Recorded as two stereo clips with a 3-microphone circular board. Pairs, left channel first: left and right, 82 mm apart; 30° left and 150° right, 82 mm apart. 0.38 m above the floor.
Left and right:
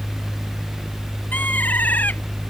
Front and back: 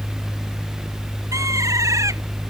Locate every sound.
1.3 s a bird: 160° left